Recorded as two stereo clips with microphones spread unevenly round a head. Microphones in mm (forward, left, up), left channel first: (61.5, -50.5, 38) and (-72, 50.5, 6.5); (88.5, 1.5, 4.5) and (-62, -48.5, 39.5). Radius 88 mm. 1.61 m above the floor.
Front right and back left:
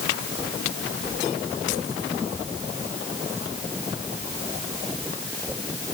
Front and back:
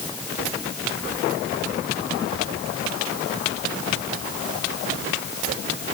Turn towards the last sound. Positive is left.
No sound to turn to.